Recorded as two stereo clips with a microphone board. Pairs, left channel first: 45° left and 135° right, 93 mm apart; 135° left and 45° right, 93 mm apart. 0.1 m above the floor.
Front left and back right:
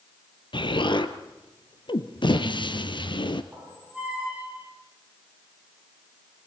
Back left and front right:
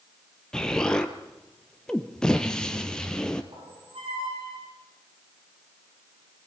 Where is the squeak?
60° right, 7.5 m.